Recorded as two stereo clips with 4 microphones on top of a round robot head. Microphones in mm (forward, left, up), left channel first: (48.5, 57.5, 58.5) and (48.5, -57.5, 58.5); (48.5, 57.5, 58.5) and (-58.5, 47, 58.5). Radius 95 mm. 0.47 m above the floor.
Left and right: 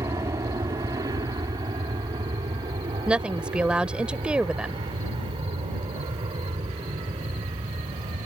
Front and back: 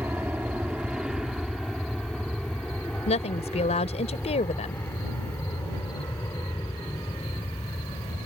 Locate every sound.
0.0 s an aircraft: 115° right; by 8.3 s 55° right
3.1 s a woman speaking: 10° right